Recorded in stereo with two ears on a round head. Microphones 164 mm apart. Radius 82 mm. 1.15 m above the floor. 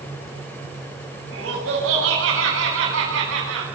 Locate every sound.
1.3 s laughter: 75° right (ahead or behind), 8 m; by 3.7 s 85° right, 9 m